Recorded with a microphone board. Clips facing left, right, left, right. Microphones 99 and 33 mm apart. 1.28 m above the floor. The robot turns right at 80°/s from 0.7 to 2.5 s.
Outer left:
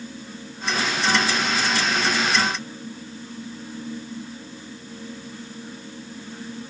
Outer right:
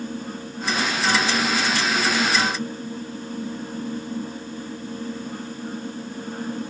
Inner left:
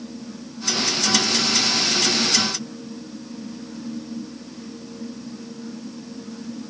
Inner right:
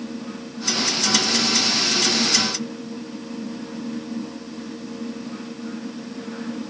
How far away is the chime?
I don't hear a chime.